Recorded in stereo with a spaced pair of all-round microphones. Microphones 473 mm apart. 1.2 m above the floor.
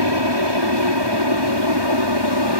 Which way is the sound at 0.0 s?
60° right (ahead or behind).